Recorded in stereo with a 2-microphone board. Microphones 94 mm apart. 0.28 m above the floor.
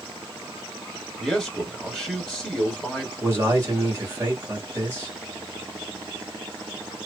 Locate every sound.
1.2 s a man speaking: 5° right (ahead or behind), 1.2 m
3.2 s a man speaking: 25° right (ahead or behind), 1.7 m